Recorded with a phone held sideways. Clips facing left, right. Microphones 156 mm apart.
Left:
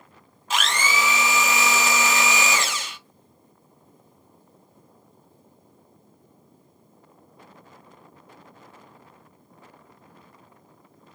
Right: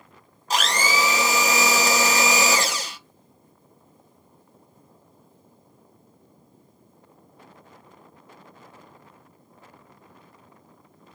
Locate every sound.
0.5 s a blender: 40° right (ahead or behind), 0.7 m